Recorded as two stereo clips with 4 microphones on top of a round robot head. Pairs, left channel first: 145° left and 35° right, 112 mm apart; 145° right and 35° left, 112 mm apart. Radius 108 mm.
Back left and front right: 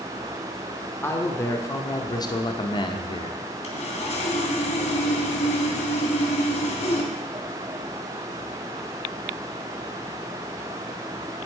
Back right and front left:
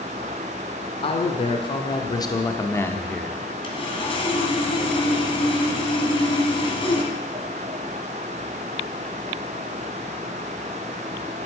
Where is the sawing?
175° left, 1.9 m.